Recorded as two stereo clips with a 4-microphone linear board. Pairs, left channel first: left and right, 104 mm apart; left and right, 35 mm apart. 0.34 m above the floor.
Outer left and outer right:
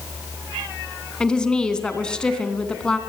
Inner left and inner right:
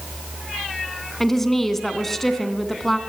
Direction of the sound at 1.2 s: 5° left (ahead or behind).